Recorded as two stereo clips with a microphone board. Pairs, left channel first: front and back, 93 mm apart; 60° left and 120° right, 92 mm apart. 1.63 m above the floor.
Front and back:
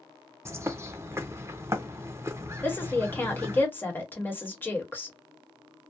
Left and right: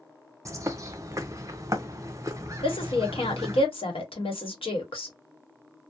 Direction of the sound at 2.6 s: 70° left.